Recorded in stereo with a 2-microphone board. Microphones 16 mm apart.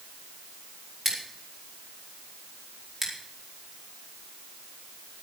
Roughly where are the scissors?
Centre.